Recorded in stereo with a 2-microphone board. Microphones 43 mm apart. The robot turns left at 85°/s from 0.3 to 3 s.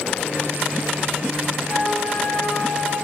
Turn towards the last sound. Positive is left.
turn(degrees=-20)